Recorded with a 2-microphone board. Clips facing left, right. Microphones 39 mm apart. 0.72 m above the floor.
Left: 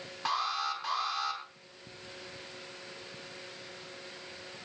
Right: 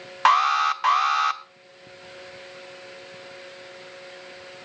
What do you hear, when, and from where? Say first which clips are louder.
0.2 s an alarm: right 14 dB; 75° right (ahead or behind), 1.0 m